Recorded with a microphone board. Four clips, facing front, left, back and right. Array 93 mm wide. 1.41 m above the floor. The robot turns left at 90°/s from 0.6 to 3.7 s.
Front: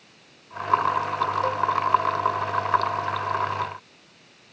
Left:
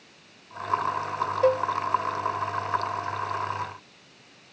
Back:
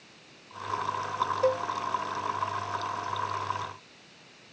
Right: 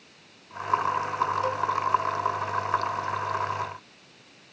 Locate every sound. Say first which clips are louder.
1.4 s a cowbell: left 6 dB, front 2 dB; 105° left; by 1.7 s 85° left